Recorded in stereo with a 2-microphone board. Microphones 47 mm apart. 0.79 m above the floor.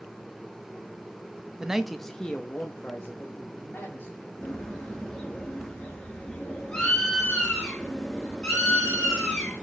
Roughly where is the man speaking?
Centre.